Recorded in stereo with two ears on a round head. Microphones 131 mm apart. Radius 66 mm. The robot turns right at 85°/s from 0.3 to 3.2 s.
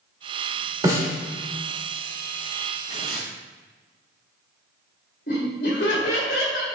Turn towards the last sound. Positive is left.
turn(degrees=65)  # may be behind; listen again after turning